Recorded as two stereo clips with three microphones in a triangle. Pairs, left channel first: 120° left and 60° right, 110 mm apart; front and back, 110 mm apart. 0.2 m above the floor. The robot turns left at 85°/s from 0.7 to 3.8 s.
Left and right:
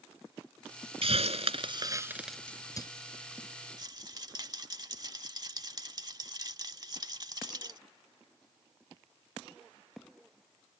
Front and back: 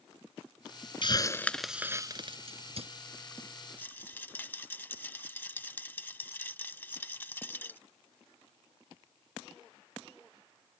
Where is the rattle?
60° right.